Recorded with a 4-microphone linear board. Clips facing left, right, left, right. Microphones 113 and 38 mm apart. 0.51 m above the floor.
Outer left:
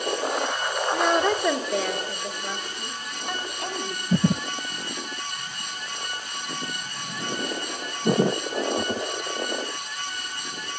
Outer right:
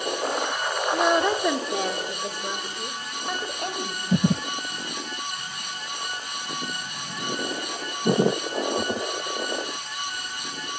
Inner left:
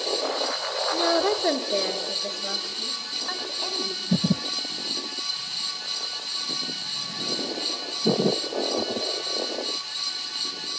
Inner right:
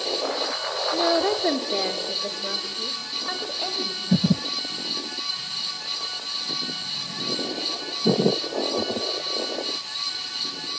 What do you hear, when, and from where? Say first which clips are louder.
0.9 s a woman speaking: outer right 1 dB, inner right 1 dB; centre (ahead or behind), 1.2 m; by 4.5 s 50° right (ahead or behind), 4 m